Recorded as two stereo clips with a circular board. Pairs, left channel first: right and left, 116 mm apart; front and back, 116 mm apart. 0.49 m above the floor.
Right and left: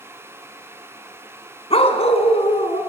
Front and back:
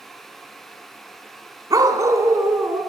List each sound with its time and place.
1.7 s a dog barking: 120° right, 2.0 m; by 2.8 s 115° right, 3 m